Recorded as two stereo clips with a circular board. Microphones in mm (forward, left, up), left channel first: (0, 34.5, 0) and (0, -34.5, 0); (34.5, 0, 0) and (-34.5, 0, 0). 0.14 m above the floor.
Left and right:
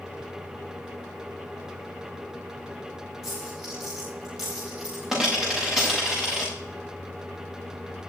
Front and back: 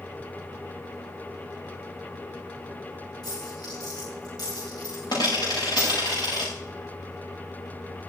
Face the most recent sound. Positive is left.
turn(degrees=-10)